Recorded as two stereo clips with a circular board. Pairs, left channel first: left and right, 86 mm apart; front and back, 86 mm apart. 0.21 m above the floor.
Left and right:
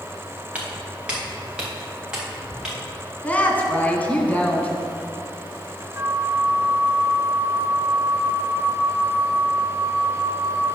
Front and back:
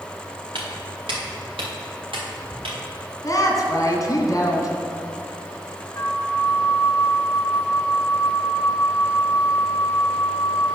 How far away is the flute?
About 0.9 m.